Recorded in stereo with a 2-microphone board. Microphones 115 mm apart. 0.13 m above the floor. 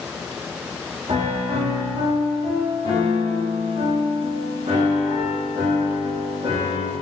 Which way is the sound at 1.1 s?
55° right (ahead or behind).